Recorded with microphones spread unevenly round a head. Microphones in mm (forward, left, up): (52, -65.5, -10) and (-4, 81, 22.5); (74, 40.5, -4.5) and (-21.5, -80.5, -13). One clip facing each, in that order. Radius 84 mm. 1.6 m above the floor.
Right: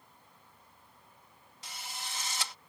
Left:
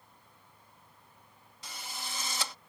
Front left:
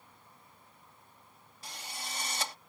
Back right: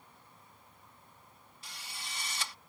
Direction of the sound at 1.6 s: 110° left.